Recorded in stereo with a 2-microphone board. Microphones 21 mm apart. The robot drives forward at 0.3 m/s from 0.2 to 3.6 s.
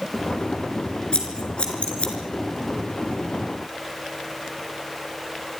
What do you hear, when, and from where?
1.1 s scissors: 55° left (ahead or behind), 5 m; by 2.1 s 60° left (ahead or behind), 4.5 m